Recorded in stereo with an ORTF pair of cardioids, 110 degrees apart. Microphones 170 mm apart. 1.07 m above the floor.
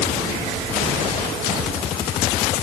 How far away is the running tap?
I don't hear a running tap.